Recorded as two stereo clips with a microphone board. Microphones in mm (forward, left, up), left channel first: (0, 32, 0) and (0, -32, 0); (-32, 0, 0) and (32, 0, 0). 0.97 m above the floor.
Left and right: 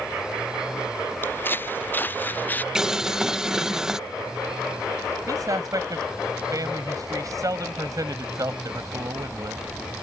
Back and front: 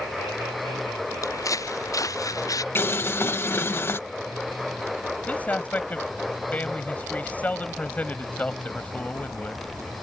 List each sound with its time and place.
1.2 s footsteps: 145° left; by 2.6 s 150° left
2.8 s boiling: 165° right
5.3 s a man speaking: 115° right